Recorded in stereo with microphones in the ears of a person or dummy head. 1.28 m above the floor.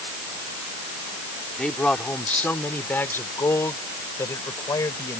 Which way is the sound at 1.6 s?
5° left (ahead or behind).